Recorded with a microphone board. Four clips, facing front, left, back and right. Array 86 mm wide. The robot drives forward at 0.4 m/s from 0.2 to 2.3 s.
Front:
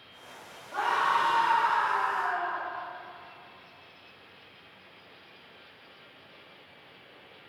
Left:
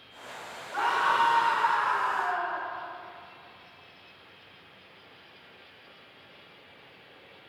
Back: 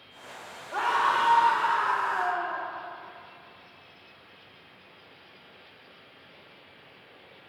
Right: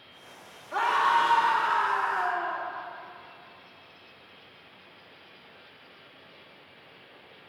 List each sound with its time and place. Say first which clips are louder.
0.7 s a scream: right 2 dB, back 1 dB; 110° right, 3 m; by 2.6 s 120° right, 3 m